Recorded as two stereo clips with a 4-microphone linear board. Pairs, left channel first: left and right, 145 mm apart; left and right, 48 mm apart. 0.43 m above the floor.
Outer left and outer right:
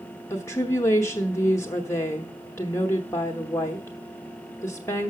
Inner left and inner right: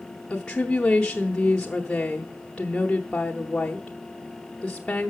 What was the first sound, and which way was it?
A woman speaking, 20° left (ahead or behind).